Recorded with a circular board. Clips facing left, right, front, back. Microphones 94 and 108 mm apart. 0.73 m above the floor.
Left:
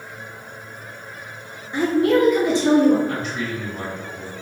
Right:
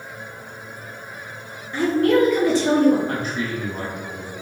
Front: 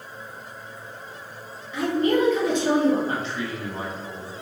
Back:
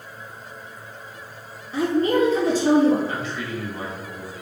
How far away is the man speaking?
About 1.5 m.